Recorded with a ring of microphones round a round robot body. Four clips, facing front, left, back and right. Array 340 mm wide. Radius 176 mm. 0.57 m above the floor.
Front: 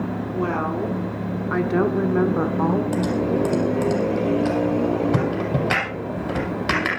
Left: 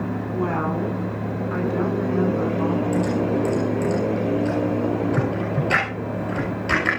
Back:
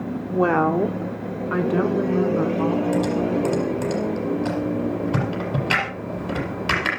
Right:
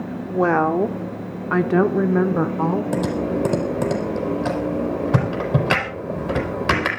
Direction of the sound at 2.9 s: 75° right.